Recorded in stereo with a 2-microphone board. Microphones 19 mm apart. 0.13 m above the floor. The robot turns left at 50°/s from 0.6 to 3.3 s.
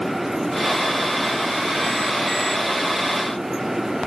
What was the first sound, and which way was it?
Only background noise.